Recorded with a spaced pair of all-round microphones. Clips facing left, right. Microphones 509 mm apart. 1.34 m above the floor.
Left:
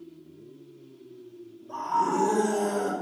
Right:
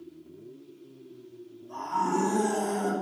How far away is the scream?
About 6 m.